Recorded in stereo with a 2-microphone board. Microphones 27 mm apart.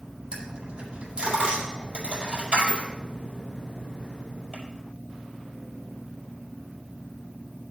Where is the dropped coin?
40° right (ahead or behind), 6 m.